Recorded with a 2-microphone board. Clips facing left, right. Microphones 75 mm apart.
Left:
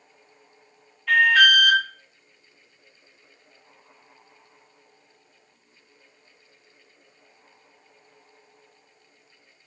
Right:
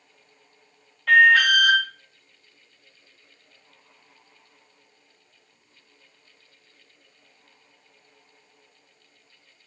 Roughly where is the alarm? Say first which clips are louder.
Right 2 dB; right.